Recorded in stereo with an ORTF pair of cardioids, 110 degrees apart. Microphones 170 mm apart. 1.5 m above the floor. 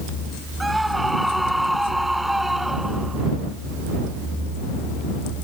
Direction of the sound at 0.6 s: Straight ahead.